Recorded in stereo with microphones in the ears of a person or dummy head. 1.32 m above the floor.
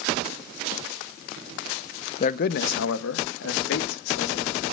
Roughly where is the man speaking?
Left.